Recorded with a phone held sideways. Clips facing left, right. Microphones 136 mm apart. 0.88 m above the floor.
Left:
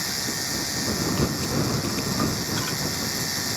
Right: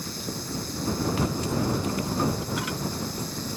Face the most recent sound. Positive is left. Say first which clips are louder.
# left 2 dB
turn(degrees=80)